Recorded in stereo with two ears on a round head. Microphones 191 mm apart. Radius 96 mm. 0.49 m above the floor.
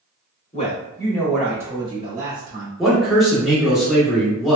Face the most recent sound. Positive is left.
turn(degrees=0)  # may be behind; listen again after turning